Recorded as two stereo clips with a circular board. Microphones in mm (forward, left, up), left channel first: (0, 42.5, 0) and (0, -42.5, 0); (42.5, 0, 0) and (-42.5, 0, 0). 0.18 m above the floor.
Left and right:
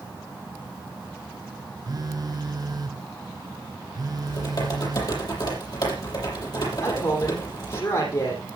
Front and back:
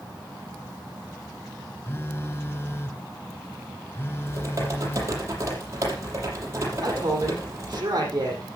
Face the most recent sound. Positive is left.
turn(degrees=130)